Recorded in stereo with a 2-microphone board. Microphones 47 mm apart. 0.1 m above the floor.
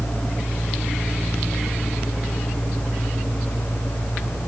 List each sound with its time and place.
Only background noise.